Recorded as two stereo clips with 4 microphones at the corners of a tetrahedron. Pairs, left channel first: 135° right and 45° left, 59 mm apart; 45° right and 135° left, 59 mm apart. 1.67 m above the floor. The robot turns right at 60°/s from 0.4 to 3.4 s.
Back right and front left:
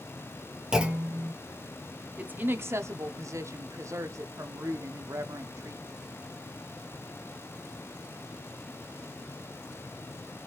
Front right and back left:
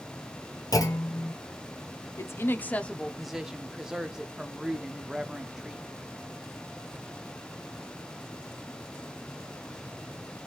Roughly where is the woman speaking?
Ahead.